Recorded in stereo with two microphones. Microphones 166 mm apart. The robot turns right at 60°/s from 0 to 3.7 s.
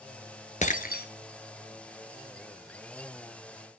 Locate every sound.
0.6 s breaking glass: 45° left (ahead or behind), 1.0 m; by 1.1 s 70° left (ahead or behind), 1.0 m